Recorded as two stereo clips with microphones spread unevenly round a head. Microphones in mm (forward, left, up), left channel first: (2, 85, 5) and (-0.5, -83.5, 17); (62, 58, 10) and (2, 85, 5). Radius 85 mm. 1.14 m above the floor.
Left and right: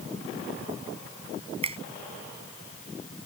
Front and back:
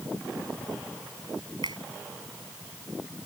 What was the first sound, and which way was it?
A finger snap, 150° right.